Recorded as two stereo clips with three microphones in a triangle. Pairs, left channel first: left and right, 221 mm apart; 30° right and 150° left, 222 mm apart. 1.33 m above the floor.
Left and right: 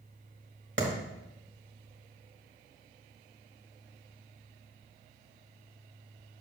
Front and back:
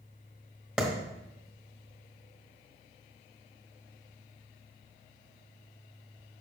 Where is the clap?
125° right, 1.8 m.